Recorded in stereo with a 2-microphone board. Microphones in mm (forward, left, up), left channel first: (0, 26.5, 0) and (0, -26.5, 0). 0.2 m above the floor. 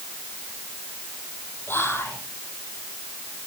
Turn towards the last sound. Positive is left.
turn(degrees=45)  # may be behind; listen again after turning